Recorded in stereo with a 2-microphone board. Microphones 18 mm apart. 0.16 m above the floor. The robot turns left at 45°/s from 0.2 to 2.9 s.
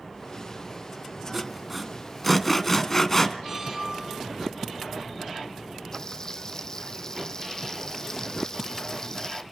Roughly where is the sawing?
Centre.